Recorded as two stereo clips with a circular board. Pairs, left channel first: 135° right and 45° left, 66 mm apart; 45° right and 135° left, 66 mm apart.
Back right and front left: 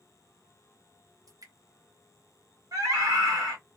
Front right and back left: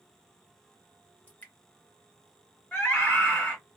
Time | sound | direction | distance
1.3 | dripping | 20° left | 0.9 m
2.7 | a scream | 30° left | 1.2 m